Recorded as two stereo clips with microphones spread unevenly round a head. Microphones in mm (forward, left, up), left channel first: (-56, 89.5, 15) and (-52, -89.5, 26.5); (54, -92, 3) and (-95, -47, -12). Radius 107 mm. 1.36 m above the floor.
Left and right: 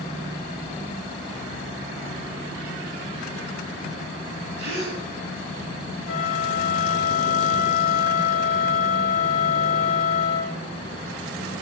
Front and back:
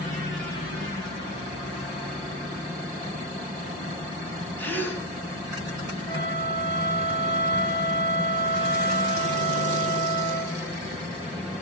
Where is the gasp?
95° right, 4 m.